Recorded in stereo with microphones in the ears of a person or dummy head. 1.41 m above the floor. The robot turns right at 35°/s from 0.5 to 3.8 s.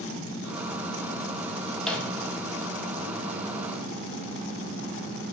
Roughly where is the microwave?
Centre.